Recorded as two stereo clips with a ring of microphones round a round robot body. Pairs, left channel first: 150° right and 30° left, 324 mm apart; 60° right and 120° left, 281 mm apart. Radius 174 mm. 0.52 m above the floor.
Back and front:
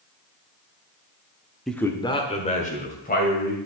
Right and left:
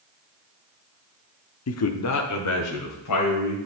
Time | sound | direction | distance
1.7 | a man speaking | 60° right | 0.9 m